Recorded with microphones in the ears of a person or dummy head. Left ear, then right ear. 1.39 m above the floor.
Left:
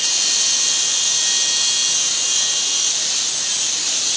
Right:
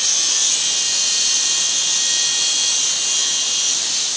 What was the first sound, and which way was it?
Only background noise.